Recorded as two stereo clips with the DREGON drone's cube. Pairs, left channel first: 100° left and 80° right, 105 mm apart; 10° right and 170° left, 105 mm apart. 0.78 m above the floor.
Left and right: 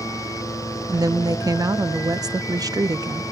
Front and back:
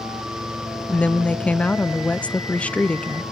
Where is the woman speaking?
85° right, 0.6 m.